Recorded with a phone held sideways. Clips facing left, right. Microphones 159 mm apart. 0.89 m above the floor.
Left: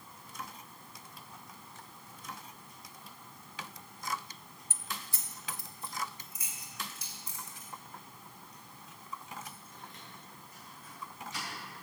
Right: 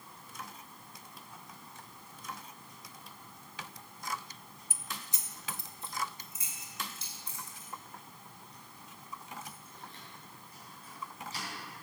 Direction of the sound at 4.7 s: 10° right (ahead or behind).